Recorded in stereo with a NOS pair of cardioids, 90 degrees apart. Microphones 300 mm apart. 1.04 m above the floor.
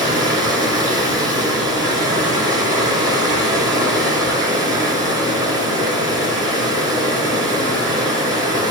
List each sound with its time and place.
0.0 s running water: 15° right, 2.5 m